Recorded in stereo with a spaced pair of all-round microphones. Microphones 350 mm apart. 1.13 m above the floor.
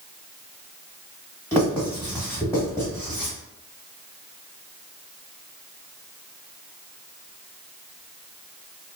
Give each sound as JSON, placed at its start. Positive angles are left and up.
{"t": 1.5, "sound": "writing", "side_deg": 10, "distance_m": 1.5}